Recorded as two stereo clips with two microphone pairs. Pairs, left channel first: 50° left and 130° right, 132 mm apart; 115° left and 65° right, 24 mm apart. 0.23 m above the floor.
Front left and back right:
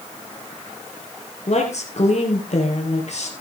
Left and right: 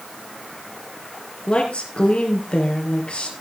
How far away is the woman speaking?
About 4.5 m.